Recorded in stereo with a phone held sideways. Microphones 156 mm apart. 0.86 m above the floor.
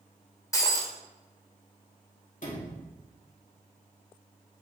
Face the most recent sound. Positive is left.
turn(degrees=55)  # may be behind; listen again after turning